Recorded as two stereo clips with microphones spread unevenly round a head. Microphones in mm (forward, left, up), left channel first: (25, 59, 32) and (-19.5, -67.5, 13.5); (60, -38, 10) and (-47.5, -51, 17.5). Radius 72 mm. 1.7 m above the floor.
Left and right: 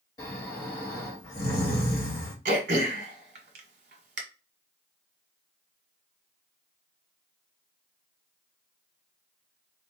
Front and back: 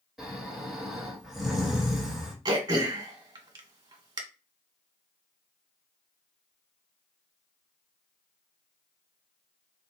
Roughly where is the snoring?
Left.